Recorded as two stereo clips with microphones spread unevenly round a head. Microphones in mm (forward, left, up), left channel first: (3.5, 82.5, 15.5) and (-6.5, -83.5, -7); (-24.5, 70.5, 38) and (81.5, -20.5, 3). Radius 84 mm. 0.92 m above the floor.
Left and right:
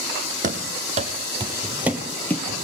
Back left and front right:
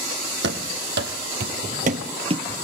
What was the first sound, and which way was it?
Running footsteps, 45° right.